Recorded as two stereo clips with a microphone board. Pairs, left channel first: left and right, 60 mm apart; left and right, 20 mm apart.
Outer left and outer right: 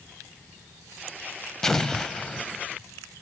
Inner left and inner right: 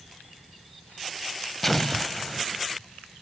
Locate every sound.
1.6 s an explosion: 10° left (ahead or behind), 0.6 m